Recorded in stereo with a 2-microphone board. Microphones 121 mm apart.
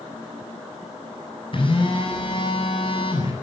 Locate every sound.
1.5 s a phone buzzing: 45° left (ahead or behind), 8 m